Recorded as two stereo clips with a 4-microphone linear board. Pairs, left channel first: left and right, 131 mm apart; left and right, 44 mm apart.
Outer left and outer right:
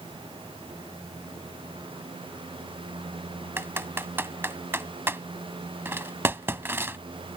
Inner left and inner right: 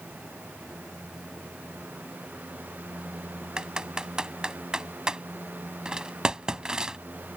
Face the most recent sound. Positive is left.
turn(degrees=-20)  # may be behind; listen again after turning